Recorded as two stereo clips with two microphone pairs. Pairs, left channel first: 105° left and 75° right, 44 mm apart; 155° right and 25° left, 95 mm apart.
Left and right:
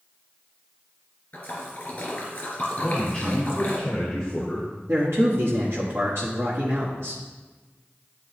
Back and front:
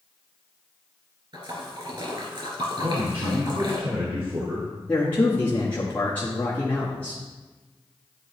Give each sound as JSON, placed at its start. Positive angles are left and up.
{"t": 1.3, "sound": "a splash", "azimuth_deg": 55, "distance_m": 2.5}
{"t": 2.8, "sound": "a man speaking", "azimuth_deg": 35, "distance_m": 1.3}
{"t": 4.9, "sound": "a man speaking", "azimuth_deg": -80, "distance_m": 1.3}